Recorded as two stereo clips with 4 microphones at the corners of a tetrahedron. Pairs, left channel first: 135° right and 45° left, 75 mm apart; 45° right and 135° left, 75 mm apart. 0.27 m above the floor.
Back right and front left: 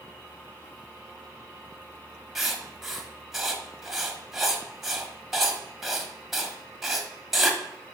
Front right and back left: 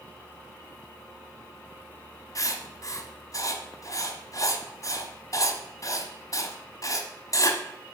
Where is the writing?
40° right, 1.2 m.